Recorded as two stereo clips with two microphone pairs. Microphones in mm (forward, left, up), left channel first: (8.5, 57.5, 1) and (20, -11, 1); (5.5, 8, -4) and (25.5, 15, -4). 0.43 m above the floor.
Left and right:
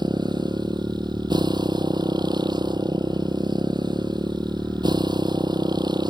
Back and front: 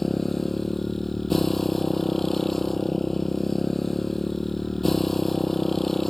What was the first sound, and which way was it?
A motorcycle, 85° right.